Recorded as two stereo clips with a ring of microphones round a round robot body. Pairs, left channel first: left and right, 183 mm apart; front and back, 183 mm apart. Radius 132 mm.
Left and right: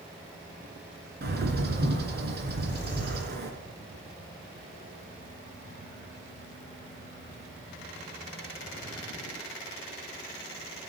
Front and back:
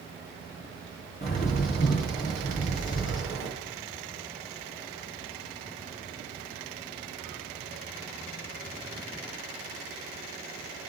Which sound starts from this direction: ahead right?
A bird, at 1.2 s.